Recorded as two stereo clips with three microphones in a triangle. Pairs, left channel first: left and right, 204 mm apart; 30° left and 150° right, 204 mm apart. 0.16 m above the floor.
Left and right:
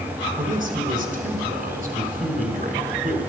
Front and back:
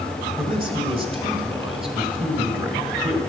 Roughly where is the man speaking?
Right.